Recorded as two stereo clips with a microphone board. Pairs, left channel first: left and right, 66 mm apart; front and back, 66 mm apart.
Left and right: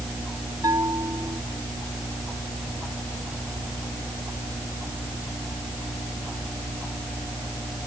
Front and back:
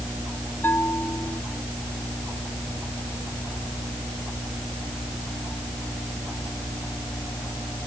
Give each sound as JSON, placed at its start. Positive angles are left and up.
{"t": 0.6, "sound": "a bell", "azimuth_deg": -60}